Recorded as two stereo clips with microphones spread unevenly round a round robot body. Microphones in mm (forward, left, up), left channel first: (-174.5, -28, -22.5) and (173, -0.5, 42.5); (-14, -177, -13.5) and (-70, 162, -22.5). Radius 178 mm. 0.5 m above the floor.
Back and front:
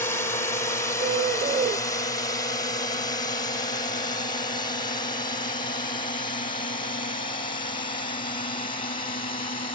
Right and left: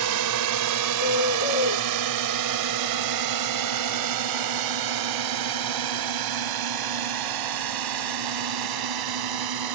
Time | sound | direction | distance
0.0 | a drone | 110° left | ?
1.0 | a bird | 65° right | ?